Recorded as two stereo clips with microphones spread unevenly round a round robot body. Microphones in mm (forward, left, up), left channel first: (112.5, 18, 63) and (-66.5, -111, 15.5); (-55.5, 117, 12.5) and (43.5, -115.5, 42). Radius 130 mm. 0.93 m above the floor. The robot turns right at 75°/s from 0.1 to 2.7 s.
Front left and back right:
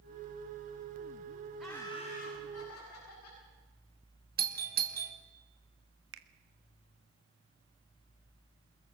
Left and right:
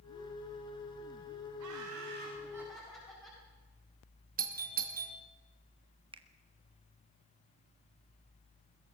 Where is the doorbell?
120° right, 2.5 m.